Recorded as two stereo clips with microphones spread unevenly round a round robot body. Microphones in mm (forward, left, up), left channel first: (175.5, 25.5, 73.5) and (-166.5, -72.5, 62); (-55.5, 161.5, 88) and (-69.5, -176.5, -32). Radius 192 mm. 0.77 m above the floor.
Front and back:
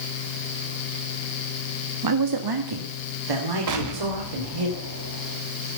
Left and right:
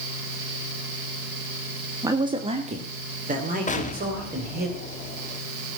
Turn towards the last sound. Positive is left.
turn(degrees=165)